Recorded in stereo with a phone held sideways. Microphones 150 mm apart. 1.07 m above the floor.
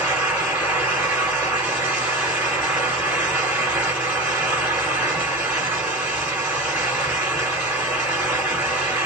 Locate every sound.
0.0 s a fan: 15° right (ahead or behind), 2.5 m